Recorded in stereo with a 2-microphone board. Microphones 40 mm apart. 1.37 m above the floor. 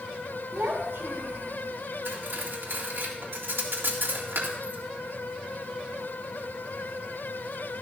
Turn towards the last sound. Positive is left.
turn(degrees=-65)  # may be behind; listen again after turning